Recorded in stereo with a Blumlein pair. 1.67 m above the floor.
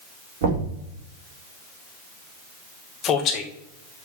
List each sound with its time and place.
0.4 s knocking: 55° right, 4 m
3.0 s a man speaking: 30° left, 2 m